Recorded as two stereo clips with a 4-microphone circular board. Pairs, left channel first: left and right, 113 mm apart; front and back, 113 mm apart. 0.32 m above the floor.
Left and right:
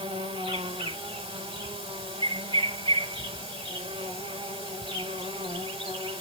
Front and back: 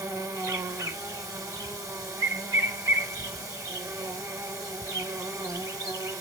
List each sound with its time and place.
0.0 s an insect: 125° right, 1.0 m